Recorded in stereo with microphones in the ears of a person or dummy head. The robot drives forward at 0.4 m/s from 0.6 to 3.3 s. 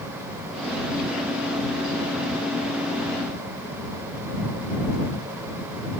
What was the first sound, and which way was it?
Only background noise.